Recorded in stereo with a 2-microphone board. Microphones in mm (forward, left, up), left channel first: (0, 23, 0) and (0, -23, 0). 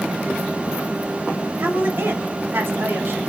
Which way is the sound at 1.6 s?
50° right (ahead or behind).